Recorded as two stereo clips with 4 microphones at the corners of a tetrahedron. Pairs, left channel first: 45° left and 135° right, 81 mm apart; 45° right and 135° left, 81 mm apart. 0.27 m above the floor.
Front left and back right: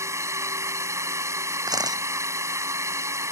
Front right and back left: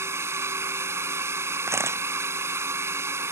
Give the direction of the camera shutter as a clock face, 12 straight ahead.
6 o'clock.